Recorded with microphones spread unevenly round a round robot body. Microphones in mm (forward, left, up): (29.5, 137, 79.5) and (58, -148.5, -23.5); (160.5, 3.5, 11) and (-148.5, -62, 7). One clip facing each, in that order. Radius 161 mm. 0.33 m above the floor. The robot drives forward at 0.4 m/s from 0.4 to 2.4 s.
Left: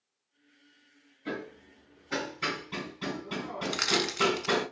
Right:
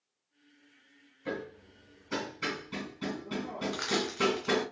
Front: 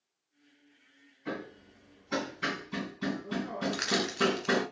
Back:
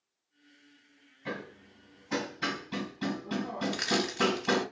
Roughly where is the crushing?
Behind left.